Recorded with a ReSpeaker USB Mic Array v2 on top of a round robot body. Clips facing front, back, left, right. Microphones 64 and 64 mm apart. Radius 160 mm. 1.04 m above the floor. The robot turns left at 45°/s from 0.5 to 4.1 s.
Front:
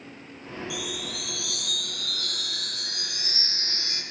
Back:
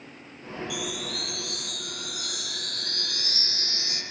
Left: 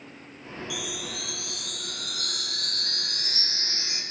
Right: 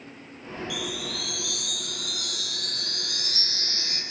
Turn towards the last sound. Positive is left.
turn(degrees=20)